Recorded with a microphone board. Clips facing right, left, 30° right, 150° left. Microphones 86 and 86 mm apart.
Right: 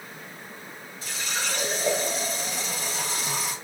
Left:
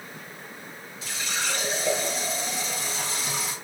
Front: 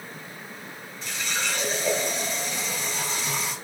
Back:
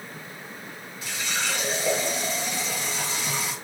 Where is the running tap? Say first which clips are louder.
Even, even; 130° right, 1.9 m.